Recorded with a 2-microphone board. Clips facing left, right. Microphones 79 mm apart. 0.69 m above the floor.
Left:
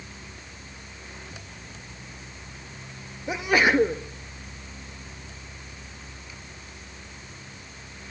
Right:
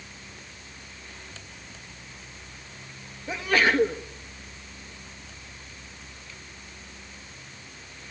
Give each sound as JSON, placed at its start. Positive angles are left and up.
{"t": 3.3, "sound": "a sneeze", "side_deg": 15, "distance_m": 0.9}